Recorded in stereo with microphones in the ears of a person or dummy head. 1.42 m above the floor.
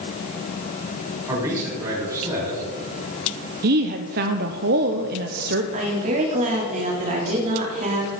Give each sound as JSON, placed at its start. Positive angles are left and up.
{"t": 1.3, "sound": "a man speaking", "side_deg": -15, "distance_m": 5.5}
{"t": 3.6, "sound": "a woman speaking", "side_deg": -50, "distance_m": 0.8}
{"t": 5.7, "sound": "a woman speaking", "side_deg": -40, "distance_m": 3.5}